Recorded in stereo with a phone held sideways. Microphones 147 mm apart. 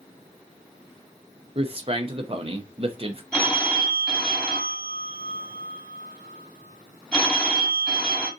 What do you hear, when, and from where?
1.6 s a man speaking: 40° right (ahead or behind), 0.6 m
3.3 s a phone ringing: 10° left (ahead or behind), 1.4 m